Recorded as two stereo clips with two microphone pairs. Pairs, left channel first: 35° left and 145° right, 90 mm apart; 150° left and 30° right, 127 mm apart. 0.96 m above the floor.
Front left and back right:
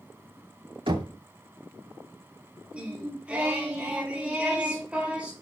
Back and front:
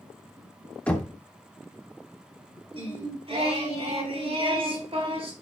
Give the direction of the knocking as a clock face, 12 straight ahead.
4 o'clock.